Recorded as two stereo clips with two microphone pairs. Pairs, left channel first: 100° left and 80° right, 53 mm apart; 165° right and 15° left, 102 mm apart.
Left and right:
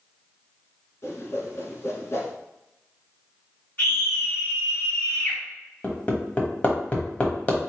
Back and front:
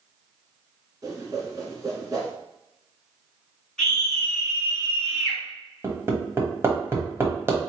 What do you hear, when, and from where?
1.0 s a whoosh: 65° left, 1.3 m
3.8 s a scream: 110° left, 2 m
5.8 s hammering: 60° left, 1.1 m